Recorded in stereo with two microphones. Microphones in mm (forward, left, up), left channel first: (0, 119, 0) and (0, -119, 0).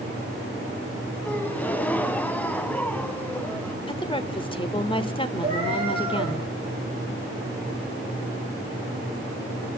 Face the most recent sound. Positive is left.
turn(degrees=-25)  # may be behind; listen again after turning